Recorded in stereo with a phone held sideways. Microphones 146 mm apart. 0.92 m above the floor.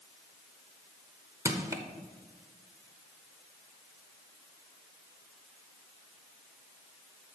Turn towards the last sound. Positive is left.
turn(degrees=-20)  # may be behind; listen again after turning